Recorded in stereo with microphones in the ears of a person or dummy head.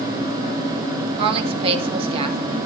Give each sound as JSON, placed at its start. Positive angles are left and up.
{"t": 1.2, "sound": "a woman speaking", "side_deg": -25, "distance_m": 1.0}